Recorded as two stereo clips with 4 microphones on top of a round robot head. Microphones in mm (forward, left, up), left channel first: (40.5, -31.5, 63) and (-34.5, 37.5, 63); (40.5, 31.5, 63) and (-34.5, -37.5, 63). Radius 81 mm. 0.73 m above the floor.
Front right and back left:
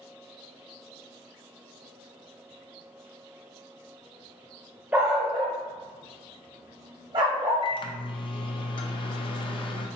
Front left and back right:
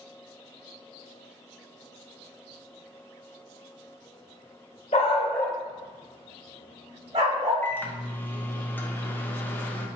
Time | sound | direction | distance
4.9 | a dog barking | 65° left | 0.6 m
7.6 | a microwave | 25° right | 0.6 m